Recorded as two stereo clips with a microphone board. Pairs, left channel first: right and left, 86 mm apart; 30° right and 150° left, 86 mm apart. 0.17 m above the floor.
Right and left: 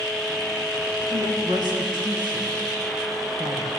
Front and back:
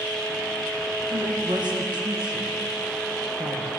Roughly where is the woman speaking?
Behind left.